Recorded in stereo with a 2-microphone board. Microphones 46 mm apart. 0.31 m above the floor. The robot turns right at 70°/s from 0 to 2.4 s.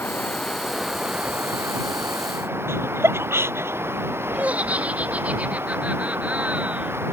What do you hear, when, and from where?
0.0 s running water: 130° left; by 7.1 s 65° right
2.7 s laughter: 70° right (ahead or behind)
4.3 s laughter: 35° right (ahead or behind)